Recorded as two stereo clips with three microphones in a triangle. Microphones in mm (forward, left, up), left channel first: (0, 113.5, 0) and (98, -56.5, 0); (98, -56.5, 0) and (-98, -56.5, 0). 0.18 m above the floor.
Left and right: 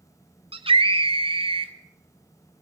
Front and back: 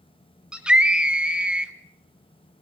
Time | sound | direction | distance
0.5 | a scream | 100° right | 1.3 m